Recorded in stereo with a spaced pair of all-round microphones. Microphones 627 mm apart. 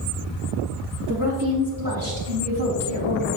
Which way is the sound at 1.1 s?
25° right (ahead or behind).